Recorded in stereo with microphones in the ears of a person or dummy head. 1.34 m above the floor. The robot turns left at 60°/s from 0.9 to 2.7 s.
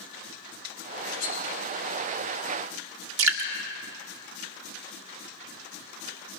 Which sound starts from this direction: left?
Cutlery clinking, at 1.2 s.